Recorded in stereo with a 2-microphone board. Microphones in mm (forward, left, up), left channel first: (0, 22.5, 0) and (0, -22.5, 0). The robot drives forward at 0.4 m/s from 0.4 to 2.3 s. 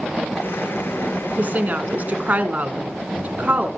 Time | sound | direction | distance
1.4 | a woman speaking | 40° right (ahead or behind) | 1.2 m